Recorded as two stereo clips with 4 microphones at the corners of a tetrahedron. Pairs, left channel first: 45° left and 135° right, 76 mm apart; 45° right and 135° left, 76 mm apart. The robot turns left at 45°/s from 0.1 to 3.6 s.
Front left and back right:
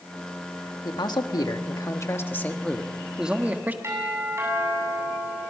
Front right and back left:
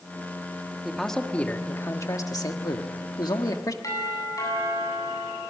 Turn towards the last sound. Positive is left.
turn(degrees=-85)